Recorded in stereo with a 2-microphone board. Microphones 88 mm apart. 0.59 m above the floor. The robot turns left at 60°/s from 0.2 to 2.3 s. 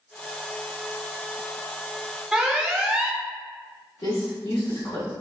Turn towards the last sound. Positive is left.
turn(degrees=55)  # may be behind; listen again after turning